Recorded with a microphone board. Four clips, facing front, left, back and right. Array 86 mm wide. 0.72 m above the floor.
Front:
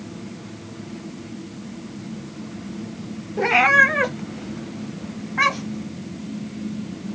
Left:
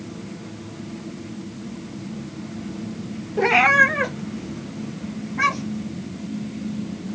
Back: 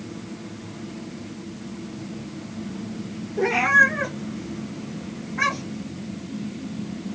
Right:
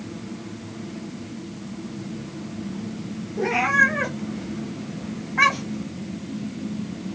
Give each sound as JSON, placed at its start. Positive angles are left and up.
{"t": 3.4, "sound": "a cat meowing", "azimuth_deg": 55, "distance_m": 0.7}